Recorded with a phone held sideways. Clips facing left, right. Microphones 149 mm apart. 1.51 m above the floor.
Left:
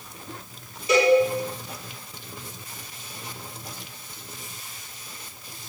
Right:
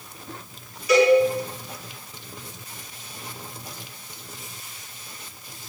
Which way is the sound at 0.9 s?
30° left (ahead or behind).